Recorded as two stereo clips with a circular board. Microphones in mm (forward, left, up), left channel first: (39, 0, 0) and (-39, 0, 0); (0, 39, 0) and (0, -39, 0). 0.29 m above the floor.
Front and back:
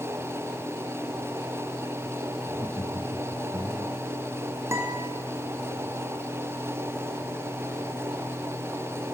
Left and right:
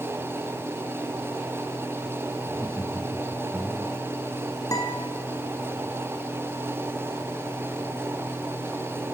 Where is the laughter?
35° left, 2.5 m; by 4.0 s 25° left, 3 m.